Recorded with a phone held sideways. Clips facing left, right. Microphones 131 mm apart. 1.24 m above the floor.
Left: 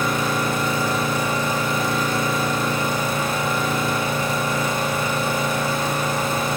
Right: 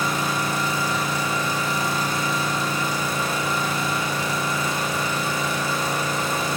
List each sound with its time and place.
0.0 s an engine running: 55° left (ahead or behind), 1.7 m